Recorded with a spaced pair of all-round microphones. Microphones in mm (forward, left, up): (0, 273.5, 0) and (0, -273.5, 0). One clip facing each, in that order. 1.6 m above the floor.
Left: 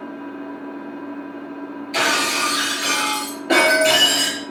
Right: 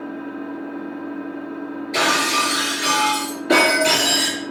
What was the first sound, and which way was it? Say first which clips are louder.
An engine running: right 2 dB; centre (ahead or behind).